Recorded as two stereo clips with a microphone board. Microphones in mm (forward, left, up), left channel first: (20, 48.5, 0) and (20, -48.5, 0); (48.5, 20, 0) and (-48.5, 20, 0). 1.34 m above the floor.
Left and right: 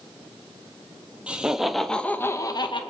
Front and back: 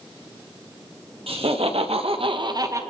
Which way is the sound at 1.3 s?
165° right.